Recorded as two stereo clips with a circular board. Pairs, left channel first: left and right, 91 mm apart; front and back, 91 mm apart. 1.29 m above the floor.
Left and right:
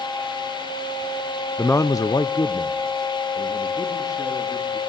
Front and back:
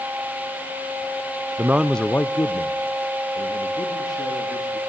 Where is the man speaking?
155° left, 0.6 m; by 4.8 s 40° left, 3.5 m.